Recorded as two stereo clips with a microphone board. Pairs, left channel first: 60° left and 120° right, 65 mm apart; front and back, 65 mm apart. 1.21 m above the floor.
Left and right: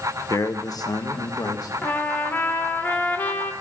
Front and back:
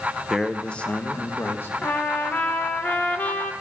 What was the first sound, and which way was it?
A man speaking, 90° left.